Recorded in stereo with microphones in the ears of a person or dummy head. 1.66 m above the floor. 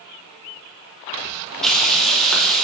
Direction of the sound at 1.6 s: Centre (ahead or behind).